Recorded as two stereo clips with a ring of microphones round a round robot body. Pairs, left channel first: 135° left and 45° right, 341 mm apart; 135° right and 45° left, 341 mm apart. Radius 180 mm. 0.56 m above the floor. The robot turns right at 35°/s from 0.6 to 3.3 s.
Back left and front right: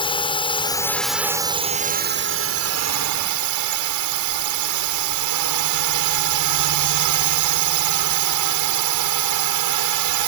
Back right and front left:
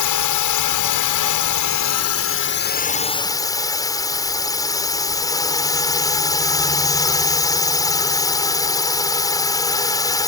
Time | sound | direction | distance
0.0 | a drone | 150° right | ?